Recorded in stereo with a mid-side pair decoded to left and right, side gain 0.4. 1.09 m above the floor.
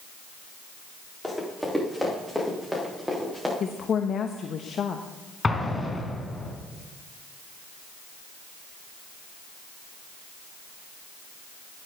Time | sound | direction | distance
1.2 | running footsteps | 5° left | 8 m
3.6 | a woman speaking | 60° left | 1.0 m
5.4 | an explosion | 25° left | 3.5 m